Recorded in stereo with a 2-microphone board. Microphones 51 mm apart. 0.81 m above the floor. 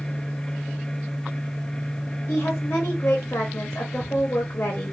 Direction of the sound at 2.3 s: 60° left (ahead or behind).